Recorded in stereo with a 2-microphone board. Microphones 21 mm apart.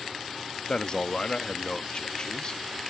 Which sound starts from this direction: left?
A man speaking, at 0.7 s.